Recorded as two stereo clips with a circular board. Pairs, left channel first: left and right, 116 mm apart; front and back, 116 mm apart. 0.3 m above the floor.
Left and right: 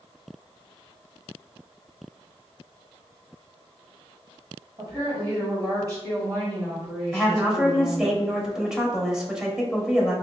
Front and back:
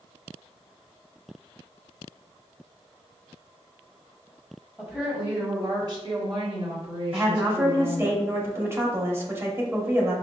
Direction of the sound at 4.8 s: 105° right.